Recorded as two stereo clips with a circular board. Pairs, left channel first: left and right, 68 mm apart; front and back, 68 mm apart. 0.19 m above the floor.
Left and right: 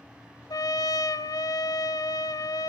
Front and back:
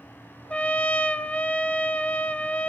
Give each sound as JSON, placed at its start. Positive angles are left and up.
{"t": 0.5, "sound": "a trumpet", "azimuth_deg": 70, "distance_m": 0.7}